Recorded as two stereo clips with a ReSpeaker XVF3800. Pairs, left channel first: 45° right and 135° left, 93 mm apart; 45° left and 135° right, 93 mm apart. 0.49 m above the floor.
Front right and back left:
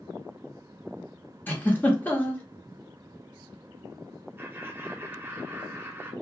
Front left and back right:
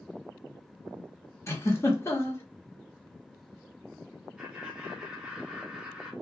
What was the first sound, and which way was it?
A giggle, 10° left.